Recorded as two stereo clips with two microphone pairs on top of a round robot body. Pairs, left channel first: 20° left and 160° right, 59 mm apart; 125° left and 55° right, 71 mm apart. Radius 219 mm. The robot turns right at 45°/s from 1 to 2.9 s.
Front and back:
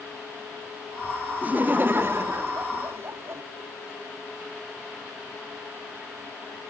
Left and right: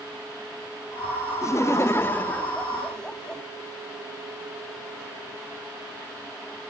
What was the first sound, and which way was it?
Laughter, 140° left.